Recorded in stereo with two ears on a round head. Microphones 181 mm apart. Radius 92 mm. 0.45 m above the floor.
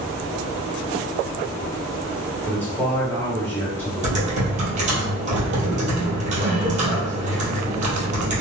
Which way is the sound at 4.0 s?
40° right (ahead or behind).